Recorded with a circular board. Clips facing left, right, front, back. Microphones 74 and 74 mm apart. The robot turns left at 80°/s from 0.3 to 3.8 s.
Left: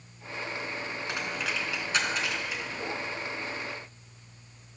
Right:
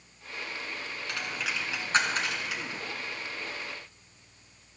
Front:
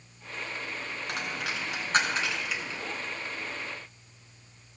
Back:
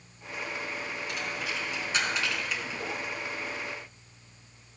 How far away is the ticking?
No ticking in this recording.